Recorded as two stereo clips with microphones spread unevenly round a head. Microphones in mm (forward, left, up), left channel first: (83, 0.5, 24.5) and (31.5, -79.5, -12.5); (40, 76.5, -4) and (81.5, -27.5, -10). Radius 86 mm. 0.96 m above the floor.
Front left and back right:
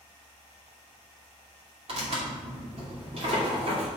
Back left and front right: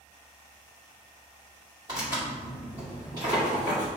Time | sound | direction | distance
1.9 | tearing paper | 135° right | 2.5 m